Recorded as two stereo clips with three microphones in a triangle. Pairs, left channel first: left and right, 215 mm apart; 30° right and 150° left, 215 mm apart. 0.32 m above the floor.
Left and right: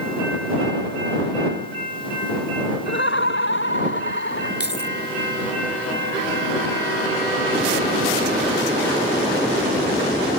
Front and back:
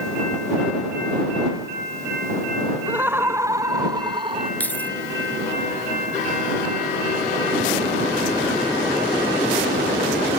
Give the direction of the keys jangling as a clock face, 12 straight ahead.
10 o'clock.